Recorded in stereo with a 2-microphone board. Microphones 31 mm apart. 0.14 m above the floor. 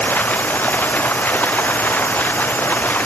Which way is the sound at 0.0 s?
80° left.